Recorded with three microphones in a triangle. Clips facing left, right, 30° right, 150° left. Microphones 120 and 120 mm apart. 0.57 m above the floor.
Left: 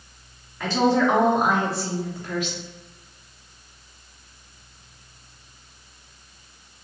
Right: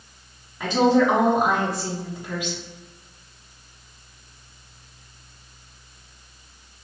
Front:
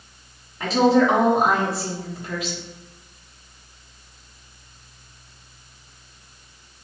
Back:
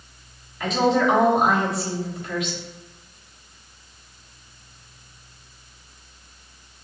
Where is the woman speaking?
30° right, 1.3 m.